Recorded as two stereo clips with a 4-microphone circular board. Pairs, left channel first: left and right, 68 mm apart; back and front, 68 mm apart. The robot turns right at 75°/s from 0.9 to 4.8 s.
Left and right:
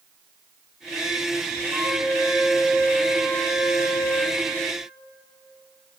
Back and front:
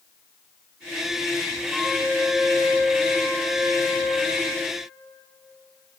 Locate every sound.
1.7 s a flute: 90° right, 1.7 m; by 4.4 s 105° left, 1.7 m